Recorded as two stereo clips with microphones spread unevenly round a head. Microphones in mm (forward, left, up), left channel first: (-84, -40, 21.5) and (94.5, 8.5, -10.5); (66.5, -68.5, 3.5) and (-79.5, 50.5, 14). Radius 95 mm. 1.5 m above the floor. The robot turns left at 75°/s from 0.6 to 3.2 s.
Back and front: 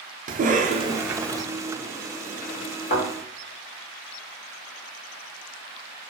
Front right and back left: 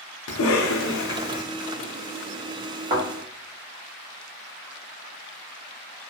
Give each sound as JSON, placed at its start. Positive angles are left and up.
{"t": 0.3, "sound": "a cough", "azimuth_deg": -30, "distance_m": 0.5}
{"t": 2.9, "sound": "a thud", "azimuth_deg": 175, "distance_m": 1.2}